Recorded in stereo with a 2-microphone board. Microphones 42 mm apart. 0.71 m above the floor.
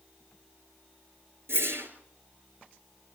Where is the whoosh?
75° right (ahead or behind), 4 m.